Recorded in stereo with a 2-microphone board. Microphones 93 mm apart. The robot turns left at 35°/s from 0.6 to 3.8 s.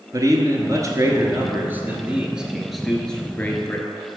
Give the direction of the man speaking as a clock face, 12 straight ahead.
3 o'clock.